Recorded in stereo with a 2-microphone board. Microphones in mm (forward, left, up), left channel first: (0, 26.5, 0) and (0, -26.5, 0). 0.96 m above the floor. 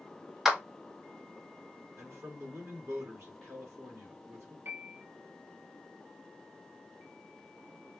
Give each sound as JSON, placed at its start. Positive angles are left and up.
{"t": 0.5, "sound": "a clap", "side_deg": -5, "distance_m": 0.6}
{"t": 2.0, "sound": "a man speaking", "side_deg": -60, "distance_m": 1.5}
{"t": 4.7, "sound": "a piano", "side_deg": -45, "distance_m": 0.6}